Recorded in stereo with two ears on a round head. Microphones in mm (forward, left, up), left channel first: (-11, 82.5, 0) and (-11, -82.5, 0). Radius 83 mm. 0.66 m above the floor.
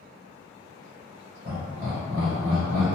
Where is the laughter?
50° right (ahead or behind), 1.4 m; by 2.9 s 20° right (ahead or behind), 1.5 m.